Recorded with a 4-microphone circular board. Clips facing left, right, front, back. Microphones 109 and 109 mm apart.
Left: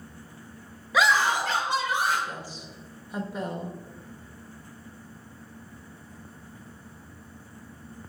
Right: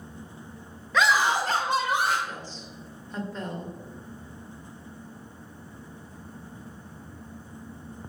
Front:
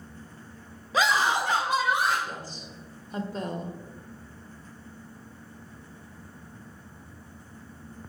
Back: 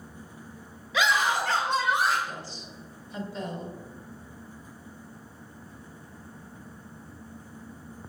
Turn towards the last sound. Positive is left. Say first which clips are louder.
# left 1 dB, front 1 dB
turn(degrees=15)